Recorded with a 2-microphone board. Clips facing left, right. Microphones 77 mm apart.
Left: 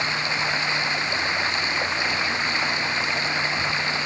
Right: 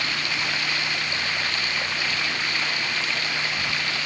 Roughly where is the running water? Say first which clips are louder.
Left 3 dB; left.